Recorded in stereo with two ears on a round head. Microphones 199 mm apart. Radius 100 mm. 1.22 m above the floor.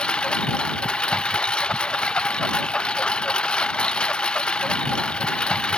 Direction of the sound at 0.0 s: 5° left (ahead or behind).